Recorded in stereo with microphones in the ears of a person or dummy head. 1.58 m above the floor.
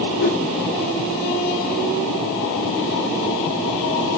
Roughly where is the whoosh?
Left.